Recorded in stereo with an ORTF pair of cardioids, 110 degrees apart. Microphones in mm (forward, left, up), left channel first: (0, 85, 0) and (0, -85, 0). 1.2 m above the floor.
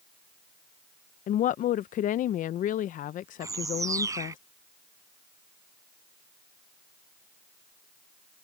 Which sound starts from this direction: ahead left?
A woman speaking, at 1.3 s.